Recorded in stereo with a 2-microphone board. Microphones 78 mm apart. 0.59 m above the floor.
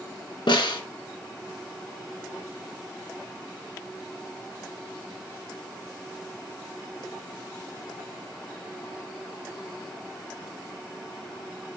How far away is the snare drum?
About 2 m.